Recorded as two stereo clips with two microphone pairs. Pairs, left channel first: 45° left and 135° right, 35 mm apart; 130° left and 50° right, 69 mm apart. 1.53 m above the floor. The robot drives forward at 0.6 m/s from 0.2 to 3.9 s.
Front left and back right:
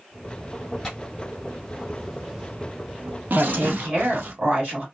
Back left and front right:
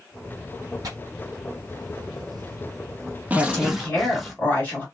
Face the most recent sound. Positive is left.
turn(degrees=-160)